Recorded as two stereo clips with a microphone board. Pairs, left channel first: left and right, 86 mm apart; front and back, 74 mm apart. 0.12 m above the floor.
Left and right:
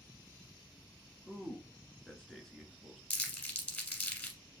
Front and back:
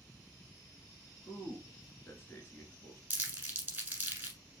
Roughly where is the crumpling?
Behind left.